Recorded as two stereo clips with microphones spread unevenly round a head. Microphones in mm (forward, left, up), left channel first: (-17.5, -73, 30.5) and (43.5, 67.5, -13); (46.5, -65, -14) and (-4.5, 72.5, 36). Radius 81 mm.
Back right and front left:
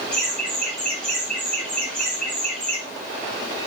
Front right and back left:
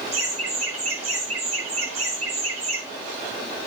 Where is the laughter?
160° left, 7 m.